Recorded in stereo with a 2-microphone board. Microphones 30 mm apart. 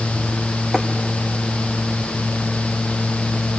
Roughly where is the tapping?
Centre.